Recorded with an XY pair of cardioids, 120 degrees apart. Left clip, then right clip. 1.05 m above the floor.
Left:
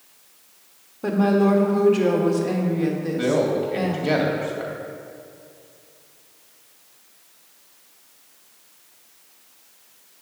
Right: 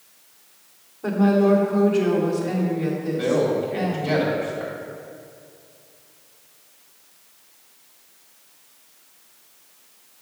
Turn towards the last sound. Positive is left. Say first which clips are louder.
# even
turn(degrees=25)